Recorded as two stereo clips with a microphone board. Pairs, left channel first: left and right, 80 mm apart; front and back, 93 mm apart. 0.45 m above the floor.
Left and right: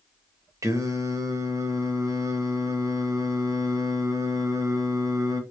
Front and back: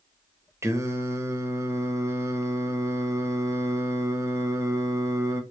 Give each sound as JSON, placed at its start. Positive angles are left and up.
{"t": 0.6, "sound": "singing", "azimuth_deg": -125, "distance_m": 0.7}